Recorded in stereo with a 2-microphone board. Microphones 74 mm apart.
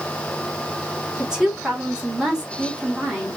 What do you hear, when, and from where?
1.2 s a woman speaking: 10° right (ahead or behind), 3 m